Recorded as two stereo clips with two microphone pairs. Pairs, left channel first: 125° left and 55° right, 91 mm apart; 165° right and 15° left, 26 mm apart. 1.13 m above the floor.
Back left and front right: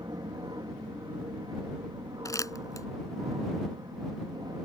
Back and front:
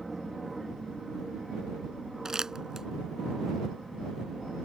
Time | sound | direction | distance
0.0 | an aircraft | 70° right | ?
2.2 | crumpling | 75° left | ?